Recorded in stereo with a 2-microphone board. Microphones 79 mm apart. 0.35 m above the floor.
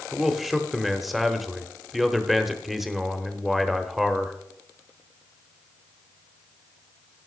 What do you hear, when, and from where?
0.1 s a man speaking: centre (ahead or behind), 0.9 m